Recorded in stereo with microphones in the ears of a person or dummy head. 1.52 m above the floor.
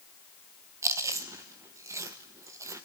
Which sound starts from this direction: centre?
Chewing, at 0.8 s.